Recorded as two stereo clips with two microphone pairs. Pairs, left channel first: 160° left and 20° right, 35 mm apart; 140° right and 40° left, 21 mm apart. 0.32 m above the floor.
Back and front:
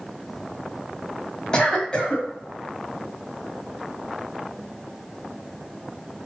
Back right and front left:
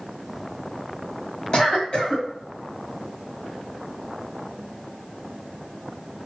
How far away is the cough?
About 1.8 m.